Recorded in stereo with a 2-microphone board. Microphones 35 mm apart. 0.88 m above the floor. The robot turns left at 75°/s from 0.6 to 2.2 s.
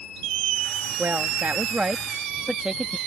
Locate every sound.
1.0 s a woman speaking: 75° right; by 3.0 s 165° right